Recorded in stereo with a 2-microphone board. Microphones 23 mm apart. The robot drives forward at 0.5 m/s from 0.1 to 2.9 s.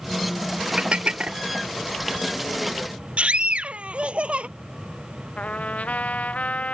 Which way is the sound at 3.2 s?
55° right (ahead or behind).